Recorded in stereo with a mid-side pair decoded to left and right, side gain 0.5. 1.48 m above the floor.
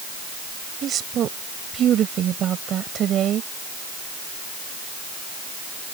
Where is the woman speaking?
55° right.